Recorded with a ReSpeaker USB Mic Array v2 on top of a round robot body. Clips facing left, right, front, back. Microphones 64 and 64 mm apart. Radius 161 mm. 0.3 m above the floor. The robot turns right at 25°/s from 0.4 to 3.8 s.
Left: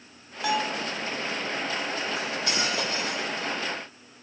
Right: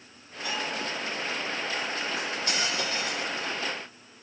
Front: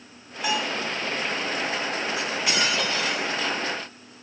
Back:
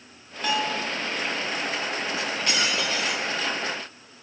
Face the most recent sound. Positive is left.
turn(degrees=120)